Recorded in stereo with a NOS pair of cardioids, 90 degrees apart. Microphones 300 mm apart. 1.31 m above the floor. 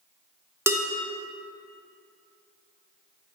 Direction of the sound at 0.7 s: 10° right.